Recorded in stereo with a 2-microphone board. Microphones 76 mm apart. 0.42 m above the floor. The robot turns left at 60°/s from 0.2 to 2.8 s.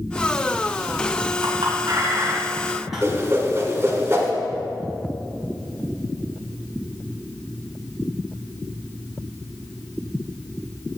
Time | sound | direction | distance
1.4 | a clink | 75° right (ahead or behind) | 2.5 m
3.0 | a whoosh | 35° right (ahead or behind) | 1.6 m